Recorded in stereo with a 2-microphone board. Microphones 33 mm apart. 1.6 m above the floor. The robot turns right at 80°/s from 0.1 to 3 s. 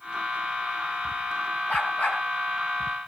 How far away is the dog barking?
About 4 m.